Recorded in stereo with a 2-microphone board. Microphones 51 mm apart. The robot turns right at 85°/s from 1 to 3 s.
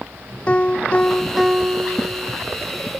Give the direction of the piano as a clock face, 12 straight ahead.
7 o'clock.